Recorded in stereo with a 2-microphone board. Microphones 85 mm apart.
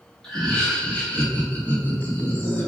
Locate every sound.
0.2 s laughter: 5° left (ahead or behind), 0.8 m; by 2.7 s 25° left (ahead or behind), 1.4 m